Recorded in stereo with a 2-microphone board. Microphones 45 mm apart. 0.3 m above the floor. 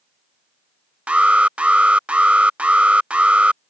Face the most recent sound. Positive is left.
turn(degrees=-30)  # may be behind; listen again after turning